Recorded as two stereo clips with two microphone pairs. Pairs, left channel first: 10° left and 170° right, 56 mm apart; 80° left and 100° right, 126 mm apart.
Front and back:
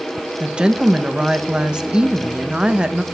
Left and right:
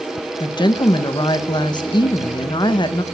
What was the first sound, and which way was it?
A woman speaking, 120° left.